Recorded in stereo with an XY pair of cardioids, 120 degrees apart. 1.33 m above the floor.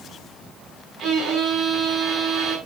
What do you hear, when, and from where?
1.0 s a violin: 65° right, 4 m